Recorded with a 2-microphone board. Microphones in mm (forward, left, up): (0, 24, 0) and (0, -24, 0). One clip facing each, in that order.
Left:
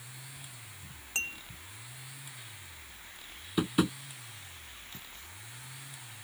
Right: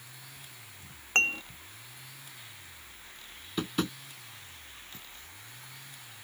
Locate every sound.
1.1 s dishes clattering: 50° right (ahead or behind)
3.6 s tapping: 10° left (ahead or behind)